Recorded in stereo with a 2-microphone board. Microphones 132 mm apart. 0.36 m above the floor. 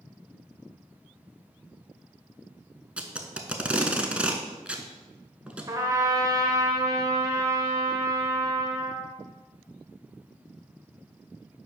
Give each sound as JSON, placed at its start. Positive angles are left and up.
{"t": 3.0, "sound": "tape being pulled", "side_deg": -10, "distance_m": 0.6}
{"t": 5.7, "sound": "a trumpet", "side_deg": -30, "distance_m": 0.9}